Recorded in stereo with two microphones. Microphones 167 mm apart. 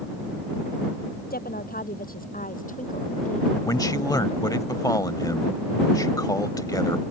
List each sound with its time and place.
1.3 s a woman speaking: 70° left (ahead or behind); by 4.7 s 40° left (ahead or behind)
3.6 s a man speaking: 25° left (ahead or behind)